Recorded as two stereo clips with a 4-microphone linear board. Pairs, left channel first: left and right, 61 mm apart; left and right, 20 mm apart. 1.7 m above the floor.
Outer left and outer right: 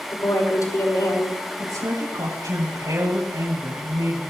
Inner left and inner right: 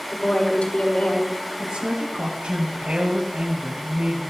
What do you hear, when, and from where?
0.1 s a woman speaking: 70° left (ahead or behind), 6 m
1.6 s a woman speaking: 80° right, 8.5 m